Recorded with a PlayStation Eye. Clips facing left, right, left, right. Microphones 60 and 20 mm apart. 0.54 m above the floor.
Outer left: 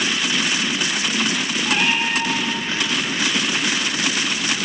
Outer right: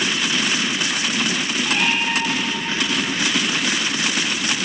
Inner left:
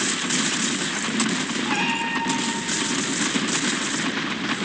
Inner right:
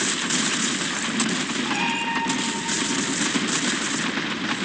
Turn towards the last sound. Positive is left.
turn(degrees=-10)  # may be behind; listen again after turning